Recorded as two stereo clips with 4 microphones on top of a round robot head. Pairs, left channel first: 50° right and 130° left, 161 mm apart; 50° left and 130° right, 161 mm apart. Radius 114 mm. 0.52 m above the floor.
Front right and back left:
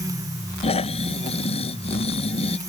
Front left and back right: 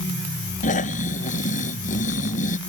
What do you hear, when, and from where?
0.6 s snoring: 5° left